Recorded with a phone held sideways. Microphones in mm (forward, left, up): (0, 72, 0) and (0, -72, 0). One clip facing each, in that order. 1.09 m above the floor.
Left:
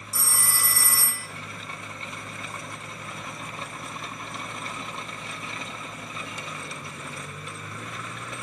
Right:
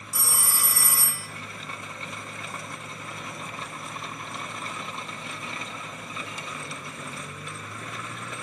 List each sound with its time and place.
0.1 s a phone ringing: 15° right (ahead or behind), 1.9 m